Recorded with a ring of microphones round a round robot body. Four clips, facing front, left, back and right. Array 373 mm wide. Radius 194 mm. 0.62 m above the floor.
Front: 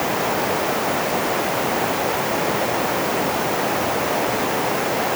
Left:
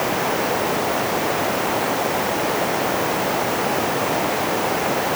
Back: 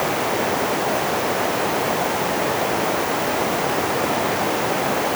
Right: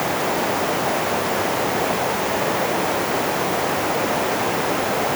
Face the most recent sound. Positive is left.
No sound to turn to.